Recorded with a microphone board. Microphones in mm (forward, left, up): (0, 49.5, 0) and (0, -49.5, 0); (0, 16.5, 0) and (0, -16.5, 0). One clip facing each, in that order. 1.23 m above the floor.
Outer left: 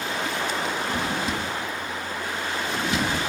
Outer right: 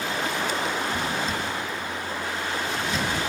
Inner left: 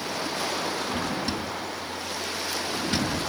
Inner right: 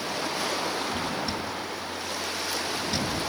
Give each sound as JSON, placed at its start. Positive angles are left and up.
{"t": 0.9, "sound": "a drawer", "side_deg": 70, "distance_m": 4.5}